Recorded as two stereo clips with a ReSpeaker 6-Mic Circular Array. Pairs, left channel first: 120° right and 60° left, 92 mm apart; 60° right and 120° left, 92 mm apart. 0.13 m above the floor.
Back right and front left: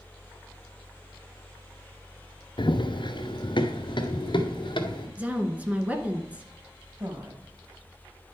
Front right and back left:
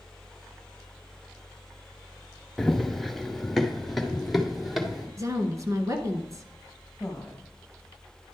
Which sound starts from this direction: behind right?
Running footsteps, at 2.6 s.